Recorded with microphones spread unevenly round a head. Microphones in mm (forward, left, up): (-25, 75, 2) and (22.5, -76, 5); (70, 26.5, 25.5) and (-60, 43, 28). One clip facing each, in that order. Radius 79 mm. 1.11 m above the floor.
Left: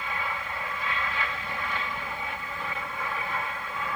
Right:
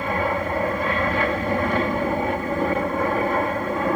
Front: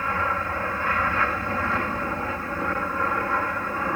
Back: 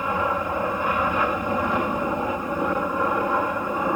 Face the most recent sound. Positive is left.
turn(degrees=-115)